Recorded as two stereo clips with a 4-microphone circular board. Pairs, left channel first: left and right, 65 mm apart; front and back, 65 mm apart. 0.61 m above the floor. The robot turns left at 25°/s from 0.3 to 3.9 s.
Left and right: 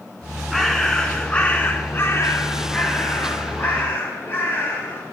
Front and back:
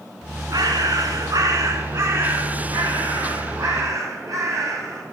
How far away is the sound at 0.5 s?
About 1.4 m.